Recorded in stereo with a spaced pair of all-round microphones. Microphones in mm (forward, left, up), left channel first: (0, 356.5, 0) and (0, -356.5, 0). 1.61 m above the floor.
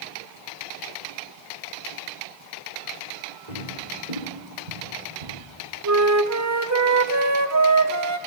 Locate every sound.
3.5 s footsteps: 50° right (ahead or behind), 8 m; by 5.3 s 60° right (ahead or behind), 8 m
5.8 s a flute: 25° right (ahead or behind), 0.6 m